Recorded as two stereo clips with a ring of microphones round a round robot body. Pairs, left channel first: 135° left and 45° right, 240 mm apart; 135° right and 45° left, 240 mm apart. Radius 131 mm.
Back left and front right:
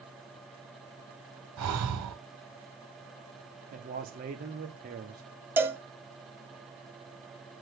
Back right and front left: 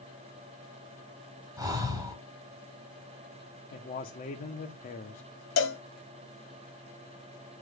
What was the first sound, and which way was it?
Breathing, 30° right.